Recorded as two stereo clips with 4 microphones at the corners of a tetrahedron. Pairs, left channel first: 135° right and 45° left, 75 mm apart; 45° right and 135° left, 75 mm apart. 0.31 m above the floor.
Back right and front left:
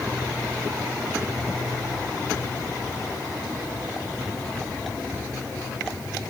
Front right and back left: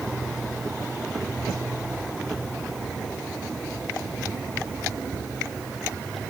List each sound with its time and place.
Only background noise.